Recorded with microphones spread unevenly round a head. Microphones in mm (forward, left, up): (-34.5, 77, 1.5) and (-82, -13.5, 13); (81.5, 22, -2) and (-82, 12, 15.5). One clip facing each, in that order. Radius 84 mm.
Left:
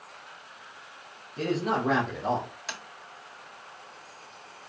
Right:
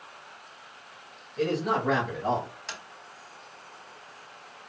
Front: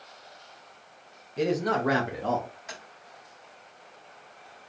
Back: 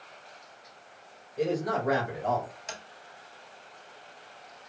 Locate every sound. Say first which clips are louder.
1.4 s a man speaking: right 1 dB, front 2 dB; straight ahead, 1.6 m; by 2.5 s 35° right, 1.2 m
2.7 s tapping: left 1 dB, back 1 dB; 150° left, 2 m